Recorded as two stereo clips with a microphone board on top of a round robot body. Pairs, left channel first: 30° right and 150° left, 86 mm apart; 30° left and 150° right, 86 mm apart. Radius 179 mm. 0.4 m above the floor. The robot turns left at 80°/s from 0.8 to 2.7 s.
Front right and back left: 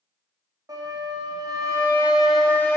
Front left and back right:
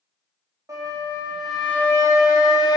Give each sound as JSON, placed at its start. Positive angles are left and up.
{"t": 0.7, "sound": "a flute", "azimuth_deg": 175, "distance_m": 0.8}